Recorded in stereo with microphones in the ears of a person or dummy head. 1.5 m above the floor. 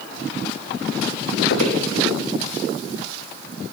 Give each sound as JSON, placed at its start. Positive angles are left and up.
{"t": 1.5, "sound": "footsteps", "side_deg": 75, "distance_m": 6.0}